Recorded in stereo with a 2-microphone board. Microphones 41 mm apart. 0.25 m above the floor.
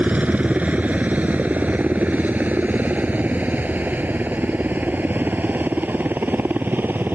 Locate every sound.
0.0 s a helicopter: 35° right (ahead or behind); by 7.2 s 50° right (ahead or behind)